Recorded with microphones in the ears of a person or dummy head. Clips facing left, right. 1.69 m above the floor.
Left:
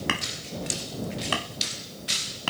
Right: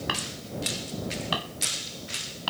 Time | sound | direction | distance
0.1 | hammering | 35° left (ahead or behind) | ?